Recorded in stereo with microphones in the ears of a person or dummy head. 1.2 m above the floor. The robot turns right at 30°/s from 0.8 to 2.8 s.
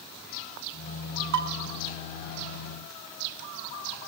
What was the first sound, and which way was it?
Dishes clattering, 60° right (ahead or behind).